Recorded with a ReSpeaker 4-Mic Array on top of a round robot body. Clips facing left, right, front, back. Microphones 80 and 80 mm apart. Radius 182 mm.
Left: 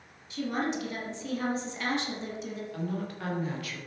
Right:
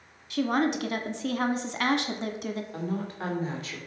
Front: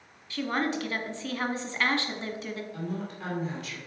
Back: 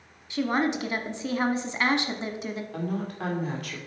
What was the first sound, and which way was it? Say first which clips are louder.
A woman speaking: right 5 dB, back 4 dB; 110° right.